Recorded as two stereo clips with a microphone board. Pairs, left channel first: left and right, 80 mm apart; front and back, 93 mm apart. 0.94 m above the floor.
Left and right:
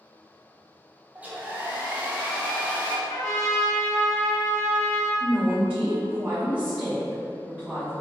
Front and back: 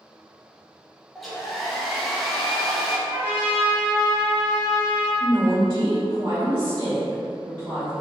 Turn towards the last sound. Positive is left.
turn(degrees=-150)